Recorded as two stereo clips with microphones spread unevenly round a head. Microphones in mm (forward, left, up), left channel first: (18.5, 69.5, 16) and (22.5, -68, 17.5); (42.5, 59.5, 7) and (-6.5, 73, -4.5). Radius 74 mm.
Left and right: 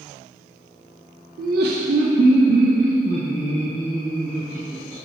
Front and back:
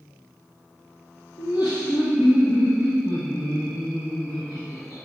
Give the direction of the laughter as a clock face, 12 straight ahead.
2 o'clock.